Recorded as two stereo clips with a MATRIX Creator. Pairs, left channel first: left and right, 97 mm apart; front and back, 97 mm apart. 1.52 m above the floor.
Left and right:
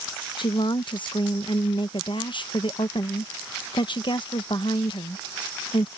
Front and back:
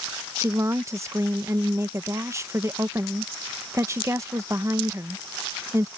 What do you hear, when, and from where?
0.4 s a woman speaking: 120° left